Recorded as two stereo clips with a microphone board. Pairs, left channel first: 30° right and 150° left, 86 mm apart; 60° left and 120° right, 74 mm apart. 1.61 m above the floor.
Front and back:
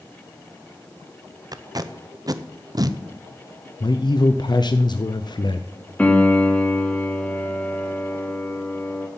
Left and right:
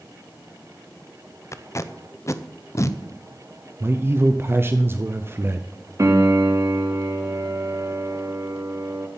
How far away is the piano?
About 1.3 m.